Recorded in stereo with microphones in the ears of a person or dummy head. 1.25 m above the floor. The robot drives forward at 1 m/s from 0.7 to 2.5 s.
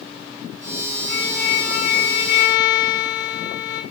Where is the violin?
65° left (ahead or behind), 8.5 m; by 3.8 s 75° left (ahead or behind), 8 m.